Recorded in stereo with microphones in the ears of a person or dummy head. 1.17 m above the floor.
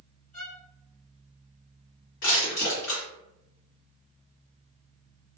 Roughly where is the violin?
Left.